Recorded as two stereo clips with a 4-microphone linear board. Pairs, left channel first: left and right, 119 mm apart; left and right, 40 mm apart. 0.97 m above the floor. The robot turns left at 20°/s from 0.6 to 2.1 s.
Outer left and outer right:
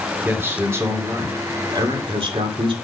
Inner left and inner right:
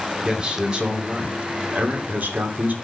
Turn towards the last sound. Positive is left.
turn(degrees=-50)